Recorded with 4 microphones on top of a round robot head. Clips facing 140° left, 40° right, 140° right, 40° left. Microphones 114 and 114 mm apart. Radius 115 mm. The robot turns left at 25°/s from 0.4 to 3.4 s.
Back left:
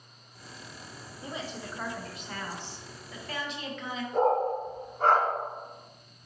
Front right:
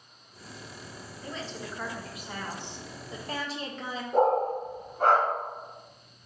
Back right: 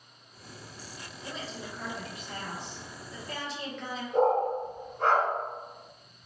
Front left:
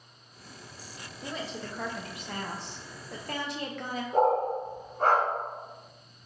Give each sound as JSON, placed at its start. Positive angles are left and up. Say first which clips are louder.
{"t": 1.2, "sound": "a woman speaking", "louder": "even, front left 3 dB", "azimuth_deg": 65, "distance_m": 0.6}
{"t": 4.1, "sound": "a dog barking", "louder": "front right 2 dB, even", "azimuth_deg": -15, "distance_m": 0.7}